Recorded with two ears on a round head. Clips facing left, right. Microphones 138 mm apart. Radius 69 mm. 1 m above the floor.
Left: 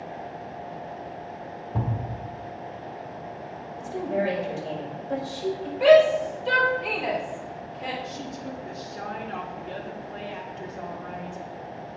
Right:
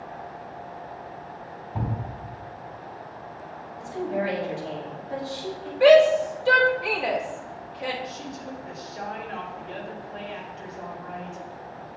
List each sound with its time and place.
1.7 s a thud: 60° left (ahead or behind), 1.8 m
3.8 s a woman speaking: 55° left (ahead or behind), 4.5 m
5.8 s a shout: 5° right (ahead or behind), 3.5 m
8.0 s a woman speaking: 55° left (ahead or behind), 2.5 m